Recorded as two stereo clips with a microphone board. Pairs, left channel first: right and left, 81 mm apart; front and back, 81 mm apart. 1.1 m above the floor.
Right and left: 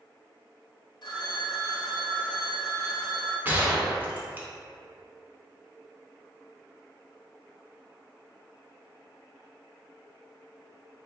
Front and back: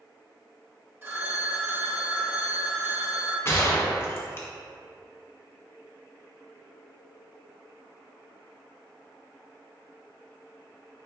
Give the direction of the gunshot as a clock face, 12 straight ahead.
11 o'clock.